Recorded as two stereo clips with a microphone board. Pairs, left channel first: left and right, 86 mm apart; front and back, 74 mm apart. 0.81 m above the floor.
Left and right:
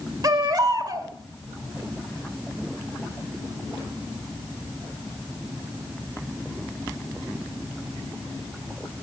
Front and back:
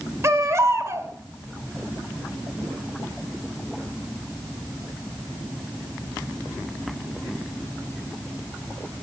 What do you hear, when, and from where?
0.2 s a baby crying: 130° right, 1.7 m